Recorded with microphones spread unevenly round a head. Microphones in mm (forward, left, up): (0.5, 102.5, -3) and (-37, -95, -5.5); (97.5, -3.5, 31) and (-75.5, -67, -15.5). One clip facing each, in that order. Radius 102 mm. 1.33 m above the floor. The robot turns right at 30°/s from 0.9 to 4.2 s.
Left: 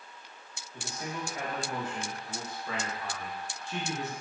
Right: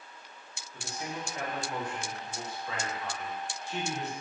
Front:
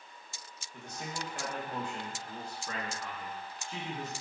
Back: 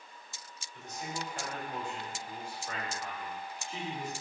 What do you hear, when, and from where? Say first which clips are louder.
0.7 s a man speaking: left 1 dB, back 1 dB; 20° right, 1.1 m; by 4.1 s 75° left, 1.1 m